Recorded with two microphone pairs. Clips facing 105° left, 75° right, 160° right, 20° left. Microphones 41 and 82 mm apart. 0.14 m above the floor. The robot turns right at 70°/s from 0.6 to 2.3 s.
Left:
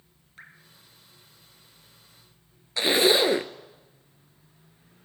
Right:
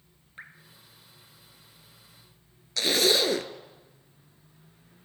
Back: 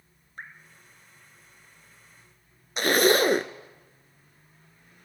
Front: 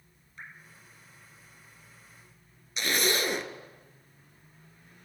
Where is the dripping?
140° right, 1.6 m.